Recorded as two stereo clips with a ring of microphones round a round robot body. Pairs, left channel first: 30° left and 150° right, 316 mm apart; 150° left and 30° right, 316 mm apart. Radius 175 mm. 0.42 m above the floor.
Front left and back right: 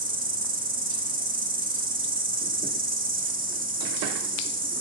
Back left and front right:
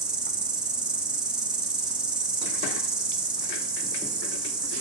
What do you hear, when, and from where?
0.0 s an insect: 115° right, 1.0 m